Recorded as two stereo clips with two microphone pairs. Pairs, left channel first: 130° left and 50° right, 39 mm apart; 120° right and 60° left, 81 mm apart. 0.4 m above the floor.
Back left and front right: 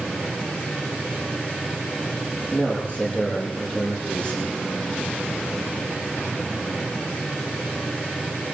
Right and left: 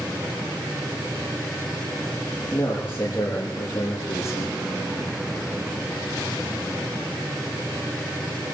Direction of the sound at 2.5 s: Straight behind.